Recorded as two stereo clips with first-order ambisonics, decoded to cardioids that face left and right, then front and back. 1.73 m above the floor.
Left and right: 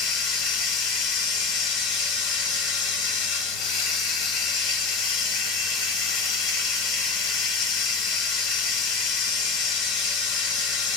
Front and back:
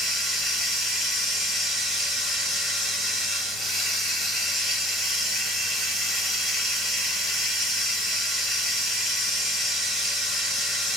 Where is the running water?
95° left, 1.6 m.